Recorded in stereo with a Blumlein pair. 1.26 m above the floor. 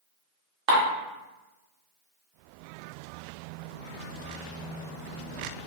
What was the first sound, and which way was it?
Dishes clattering, 40° right.